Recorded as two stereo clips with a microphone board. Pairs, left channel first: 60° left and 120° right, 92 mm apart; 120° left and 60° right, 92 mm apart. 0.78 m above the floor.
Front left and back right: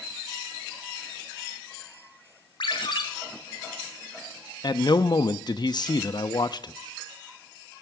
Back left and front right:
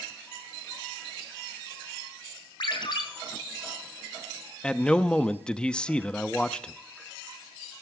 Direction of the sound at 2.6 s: 90° left.